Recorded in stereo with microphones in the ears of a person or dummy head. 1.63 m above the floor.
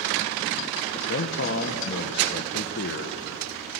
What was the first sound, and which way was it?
A man speaking, 60° left (ahead or behind).